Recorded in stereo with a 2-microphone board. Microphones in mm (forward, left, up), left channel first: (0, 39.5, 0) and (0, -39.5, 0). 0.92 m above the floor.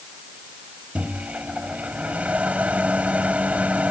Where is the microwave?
15° right (ahead or behind).